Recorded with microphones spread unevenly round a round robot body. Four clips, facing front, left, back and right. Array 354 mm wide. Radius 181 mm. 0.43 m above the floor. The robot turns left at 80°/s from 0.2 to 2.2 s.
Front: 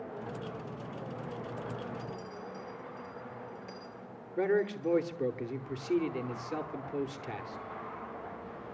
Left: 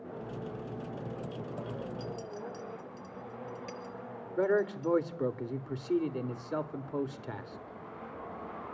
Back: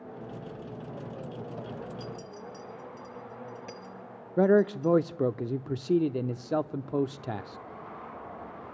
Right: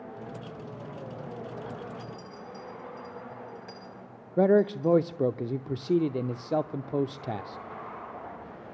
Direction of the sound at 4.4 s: 150° right.